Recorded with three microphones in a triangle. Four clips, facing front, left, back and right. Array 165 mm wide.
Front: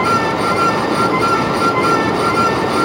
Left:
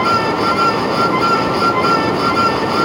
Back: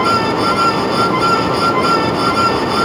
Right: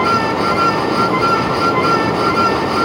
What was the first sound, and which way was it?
Only background noise.